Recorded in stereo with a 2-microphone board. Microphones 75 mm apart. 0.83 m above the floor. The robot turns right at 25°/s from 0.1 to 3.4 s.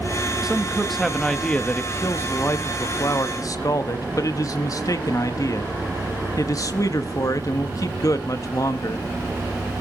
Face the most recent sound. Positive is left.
turn(degrees=60)